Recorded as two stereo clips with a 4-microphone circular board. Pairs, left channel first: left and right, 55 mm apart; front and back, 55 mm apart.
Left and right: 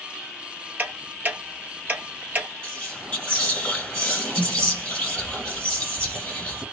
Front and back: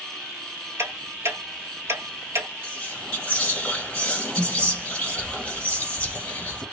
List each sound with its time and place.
0.8 s ticking: 145° right, 0.8 m
2.6 s whispering: 40° left, 1.2 m